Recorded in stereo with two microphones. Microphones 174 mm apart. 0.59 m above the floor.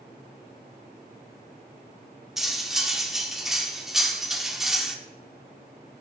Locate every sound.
2.4 s cutlery clinking: 5° right (ahead or behind), 0.6 m